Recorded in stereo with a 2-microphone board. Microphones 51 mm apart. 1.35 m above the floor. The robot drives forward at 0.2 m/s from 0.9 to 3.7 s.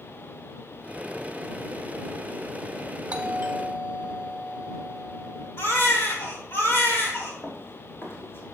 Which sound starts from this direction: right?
A doorbell, at 3.1 s.